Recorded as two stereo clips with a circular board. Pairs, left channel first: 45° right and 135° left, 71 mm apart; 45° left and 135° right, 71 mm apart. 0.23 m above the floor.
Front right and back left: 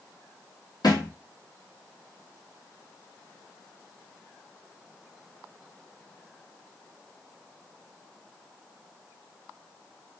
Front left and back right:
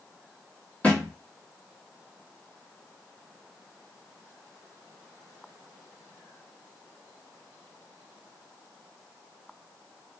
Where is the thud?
25° right, 0.9 m.